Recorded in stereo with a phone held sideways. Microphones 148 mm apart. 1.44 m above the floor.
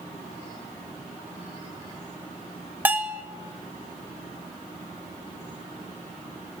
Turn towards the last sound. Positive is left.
turn(degrees=-15)  # may be behind; listen again after turning